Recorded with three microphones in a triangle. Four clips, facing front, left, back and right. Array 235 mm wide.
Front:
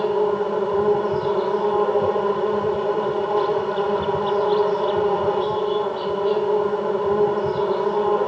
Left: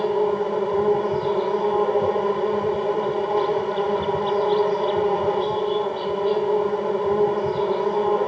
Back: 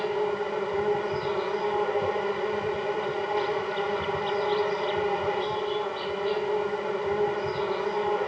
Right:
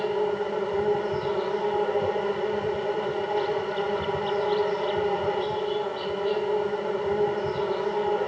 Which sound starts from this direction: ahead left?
An insect, at 0.0 s.